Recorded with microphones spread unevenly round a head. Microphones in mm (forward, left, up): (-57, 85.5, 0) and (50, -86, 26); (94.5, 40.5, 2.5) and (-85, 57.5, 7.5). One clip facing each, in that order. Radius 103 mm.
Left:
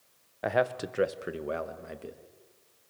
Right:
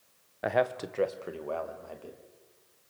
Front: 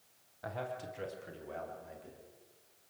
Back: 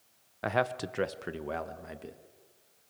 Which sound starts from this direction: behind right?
A man speaking, at 0.4 s.